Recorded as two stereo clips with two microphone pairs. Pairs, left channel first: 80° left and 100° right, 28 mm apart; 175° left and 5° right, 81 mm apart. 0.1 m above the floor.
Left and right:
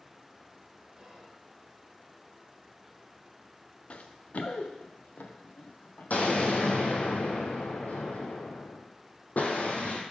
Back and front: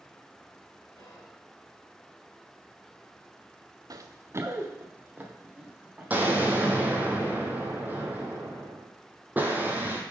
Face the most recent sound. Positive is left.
turn(degrees=60)